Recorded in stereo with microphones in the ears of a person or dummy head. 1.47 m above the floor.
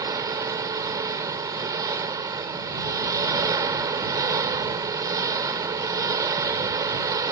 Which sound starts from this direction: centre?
An engine running, at 0.0 s.